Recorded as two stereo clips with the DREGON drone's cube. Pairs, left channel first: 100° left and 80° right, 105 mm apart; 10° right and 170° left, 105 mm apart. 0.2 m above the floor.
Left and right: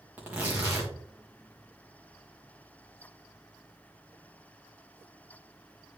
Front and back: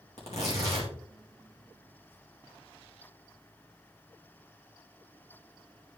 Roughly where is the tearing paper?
Ahead.